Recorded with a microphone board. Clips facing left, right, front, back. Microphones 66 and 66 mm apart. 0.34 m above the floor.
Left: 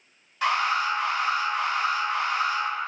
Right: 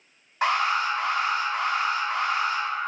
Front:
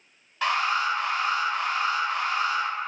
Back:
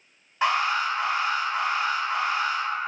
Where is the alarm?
125° right, 1.6 m.